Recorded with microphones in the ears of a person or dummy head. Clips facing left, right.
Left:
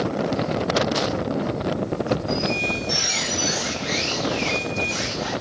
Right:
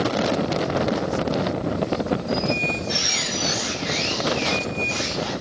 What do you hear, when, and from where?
2.3 s a squeak: 25° left (ahead or behind), 2.5 m